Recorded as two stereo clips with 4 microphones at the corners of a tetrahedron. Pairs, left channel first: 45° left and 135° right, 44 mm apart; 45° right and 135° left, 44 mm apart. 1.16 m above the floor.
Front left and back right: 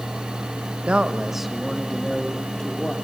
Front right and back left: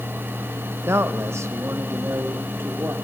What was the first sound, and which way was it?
A man speaking, 160° left.